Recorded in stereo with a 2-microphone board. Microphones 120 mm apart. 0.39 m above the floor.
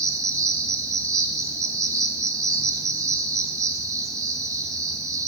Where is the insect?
30° right (ahead or behind), 0.9 m.